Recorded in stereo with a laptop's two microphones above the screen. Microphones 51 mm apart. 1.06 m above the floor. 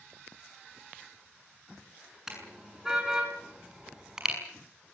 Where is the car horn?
10° right (ahead or behind), 7.5 m.